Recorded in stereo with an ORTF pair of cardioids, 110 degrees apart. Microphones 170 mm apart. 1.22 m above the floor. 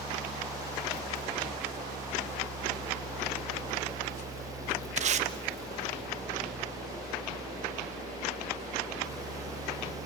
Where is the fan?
20° right, 1.5 m.